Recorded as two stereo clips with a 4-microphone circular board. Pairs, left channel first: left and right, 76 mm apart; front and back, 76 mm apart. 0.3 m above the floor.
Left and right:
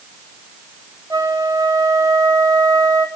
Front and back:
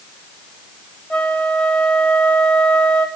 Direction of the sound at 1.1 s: 75° right.